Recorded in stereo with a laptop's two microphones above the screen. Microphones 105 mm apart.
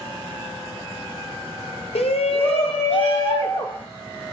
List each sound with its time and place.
1.9 s a shout: 70° left (ahead or behind), 0.6 m; by 3.8 s 55° left (ahead or behind), 1.6 m